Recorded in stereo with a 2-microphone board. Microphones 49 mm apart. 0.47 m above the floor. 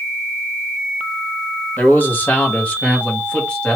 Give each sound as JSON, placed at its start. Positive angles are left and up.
{"t": 1.8, "sound": "a man speaking", "side_deg": 40, "distance_m": 1.7}